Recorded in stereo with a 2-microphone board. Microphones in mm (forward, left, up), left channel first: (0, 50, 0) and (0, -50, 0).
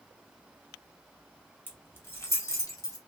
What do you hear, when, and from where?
1.7 s keys jangling: 20° left (ahead or behind), 0.9 m; by 3.0 s 35° left (ahead or behind), 1.0 m